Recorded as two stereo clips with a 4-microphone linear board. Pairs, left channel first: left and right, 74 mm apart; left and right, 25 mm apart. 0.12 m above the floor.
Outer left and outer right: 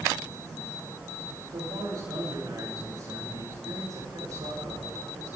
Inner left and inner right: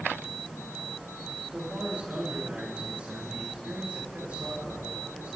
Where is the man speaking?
75° right (ahead or behind), 9.5 m.